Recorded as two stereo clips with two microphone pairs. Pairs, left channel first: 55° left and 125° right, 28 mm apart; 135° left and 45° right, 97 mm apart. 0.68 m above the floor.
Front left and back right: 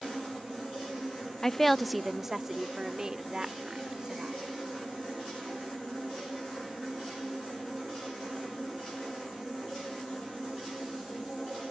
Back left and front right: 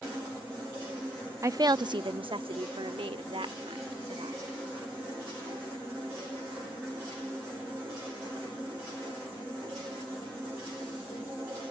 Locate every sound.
1.4 s a woman speaking: 5° right; by 4.4 s 65° right